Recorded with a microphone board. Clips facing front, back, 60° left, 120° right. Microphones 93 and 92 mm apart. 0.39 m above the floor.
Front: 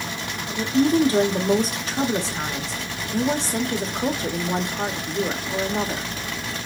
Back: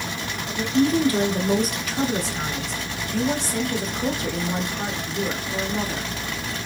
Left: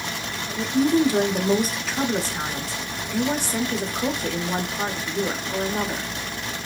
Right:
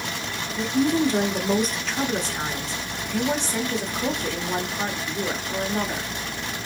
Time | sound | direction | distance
0.6 | a woman speaking | 15° right | 1.0 m